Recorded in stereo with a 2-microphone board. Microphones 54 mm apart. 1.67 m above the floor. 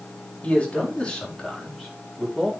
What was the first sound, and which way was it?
A man speaking, 20° left (ahead or behind).